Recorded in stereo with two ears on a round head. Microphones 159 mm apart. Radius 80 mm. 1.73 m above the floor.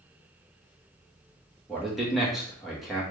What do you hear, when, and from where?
1.7 s a man speaking: centre (ahead or behind), 1.1 m